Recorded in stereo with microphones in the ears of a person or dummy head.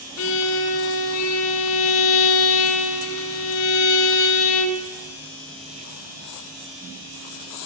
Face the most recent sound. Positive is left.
turn(degrees=70)  # may be behind; listen again after turning